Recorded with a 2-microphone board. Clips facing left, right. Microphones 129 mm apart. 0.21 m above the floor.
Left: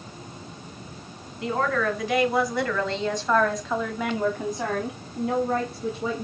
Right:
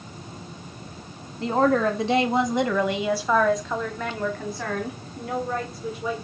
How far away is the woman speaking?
About 1.8 m.